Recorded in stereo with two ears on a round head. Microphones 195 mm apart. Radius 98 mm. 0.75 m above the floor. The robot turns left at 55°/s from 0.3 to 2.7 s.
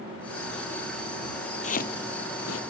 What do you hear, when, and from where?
1.6 s chopping: 35° left (ahead or behind); by 2.6 s 85° left